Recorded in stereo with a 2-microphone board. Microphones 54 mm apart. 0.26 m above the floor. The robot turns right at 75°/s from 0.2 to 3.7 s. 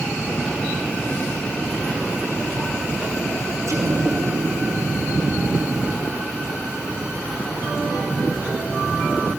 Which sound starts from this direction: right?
An explosion, at 3.7 s.